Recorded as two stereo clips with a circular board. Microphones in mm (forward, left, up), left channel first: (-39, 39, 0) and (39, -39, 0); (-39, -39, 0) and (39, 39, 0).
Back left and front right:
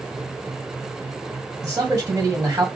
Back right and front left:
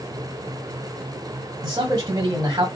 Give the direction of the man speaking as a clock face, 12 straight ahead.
12 o'clock.